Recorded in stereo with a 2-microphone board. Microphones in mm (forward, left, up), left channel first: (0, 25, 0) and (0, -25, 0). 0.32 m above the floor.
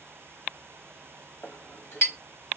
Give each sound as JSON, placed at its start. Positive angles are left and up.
{"t": 1.4, "sound": "a clink", "side_deg": 55, "distance_m": 0.9}